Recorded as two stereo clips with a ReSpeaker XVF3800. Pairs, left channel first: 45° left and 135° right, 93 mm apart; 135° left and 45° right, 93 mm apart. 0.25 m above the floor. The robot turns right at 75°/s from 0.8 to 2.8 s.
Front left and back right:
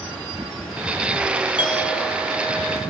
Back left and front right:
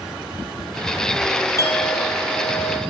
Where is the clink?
75° left, 4.5 m; by 2.8 s 170° left, 4.5 m.